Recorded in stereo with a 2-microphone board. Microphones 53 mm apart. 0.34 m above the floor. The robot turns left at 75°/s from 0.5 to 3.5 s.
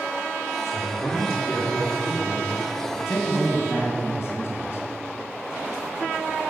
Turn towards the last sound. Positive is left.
turn(degrees=80)